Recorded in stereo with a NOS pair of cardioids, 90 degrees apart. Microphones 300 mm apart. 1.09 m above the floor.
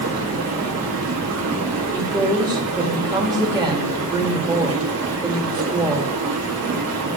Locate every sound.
0.0 s running water: 55° right, 1.7 m
1.9 s a woman speaking: 15° right, 2 m